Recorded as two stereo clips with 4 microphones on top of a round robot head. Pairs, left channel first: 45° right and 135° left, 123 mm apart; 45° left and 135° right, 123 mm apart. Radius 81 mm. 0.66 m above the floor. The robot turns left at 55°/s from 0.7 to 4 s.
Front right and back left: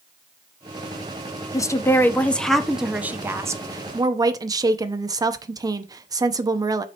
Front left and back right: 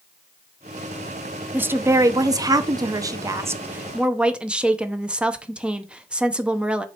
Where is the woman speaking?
75° right, 0.7 m; by 6.8 s 150° left, 0.7 m.